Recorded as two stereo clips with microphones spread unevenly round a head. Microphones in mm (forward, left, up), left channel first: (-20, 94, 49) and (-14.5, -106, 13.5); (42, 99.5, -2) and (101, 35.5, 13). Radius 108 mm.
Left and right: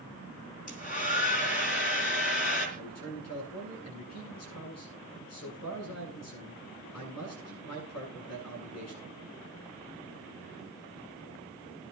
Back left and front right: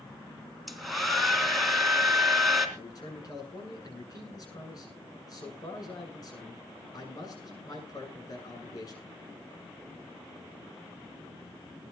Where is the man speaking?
90° left, 9 m.